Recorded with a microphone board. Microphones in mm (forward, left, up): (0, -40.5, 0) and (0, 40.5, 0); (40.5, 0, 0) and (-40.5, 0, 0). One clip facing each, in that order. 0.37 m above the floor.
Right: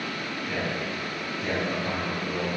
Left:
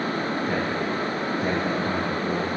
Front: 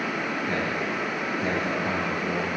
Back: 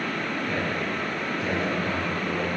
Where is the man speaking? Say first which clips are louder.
Left 5 dB, even; 45° left, 2 m; by 2.5 s 10° left, 3 m.